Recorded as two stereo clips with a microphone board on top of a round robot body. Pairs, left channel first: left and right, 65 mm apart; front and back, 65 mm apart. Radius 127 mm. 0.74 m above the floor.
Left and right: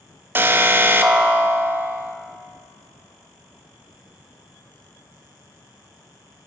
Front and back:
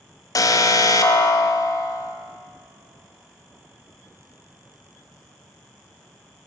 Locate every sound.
0.3 s an alarm: 30° right, 0.6 m